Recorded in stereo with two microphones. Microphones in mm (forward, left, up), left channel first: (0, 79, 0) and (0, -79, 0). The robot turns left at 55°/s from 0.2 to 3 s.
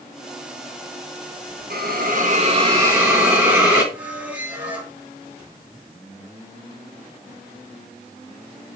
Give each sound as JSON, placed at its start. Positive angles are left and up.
{"t": 1.7, "sound": "a hiss", "azimuth_deg": -95, "distance_m": 2.5}
{"t": 3.9, "sound": "a squeak", "side_deg": -10, "distance_m": 2.0}